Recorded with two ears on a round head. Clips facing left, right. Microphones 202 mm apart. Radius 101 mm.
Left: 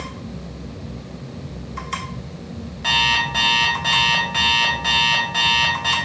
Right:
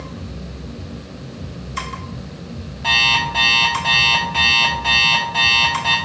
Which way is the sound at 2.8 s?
25° left (ahead or behind).